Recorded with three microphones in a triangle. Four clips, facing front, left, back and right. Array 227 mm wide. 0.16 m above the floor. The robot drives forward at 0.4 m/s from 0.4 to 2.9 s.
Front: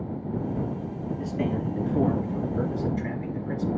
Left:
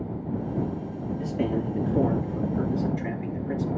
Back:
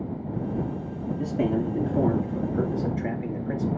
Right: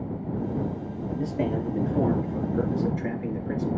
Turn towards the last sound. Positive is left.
turn(degrees=-155)